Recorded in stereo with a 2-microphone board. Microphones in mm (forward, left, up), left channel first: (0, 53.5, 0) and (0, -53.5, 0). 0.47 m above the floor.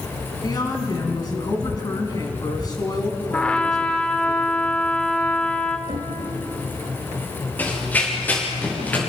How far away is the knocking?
About 2.5 m.